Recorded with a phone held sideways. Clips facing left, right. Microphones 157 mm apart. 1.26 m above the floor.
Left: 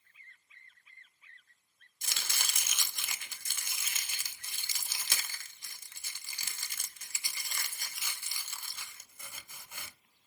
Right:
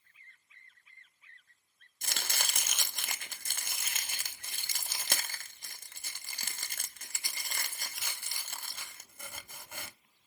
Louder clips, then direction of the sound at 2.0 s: Right 4 dB; 55° right (ahead or behind).